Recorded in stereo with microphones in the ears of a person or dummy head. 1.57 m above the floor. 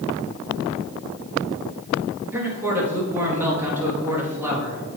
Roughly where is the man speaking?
Centre.